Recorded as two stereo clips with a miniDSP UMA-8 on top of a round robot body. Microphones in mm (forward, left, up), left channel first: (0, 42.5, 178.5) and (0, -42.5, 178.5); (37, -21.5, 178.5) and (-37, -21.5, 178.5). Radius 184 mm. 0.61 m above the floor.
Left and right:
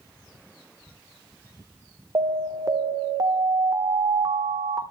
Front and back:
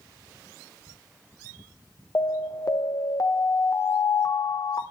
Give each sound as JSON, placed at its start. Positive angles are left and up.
{"t": 2.1, "sound": "an alarm", "azimuth_deg": -40, "distance_m": 1.6}